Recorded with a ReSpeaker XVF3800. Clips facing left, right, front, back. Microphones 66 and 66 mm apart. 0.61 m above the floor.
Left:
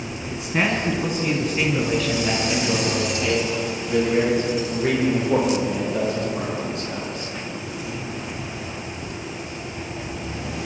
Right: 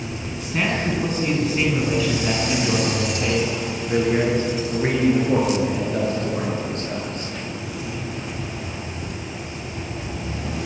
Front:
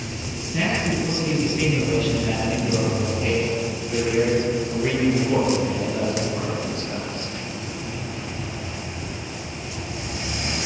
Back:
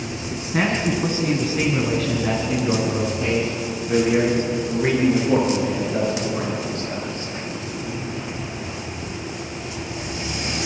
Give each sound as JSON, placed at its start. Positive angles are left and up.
{"t": 0.3, "sound": "a man speaking", "azimuth_deg": 165, "distance_m": 6.5}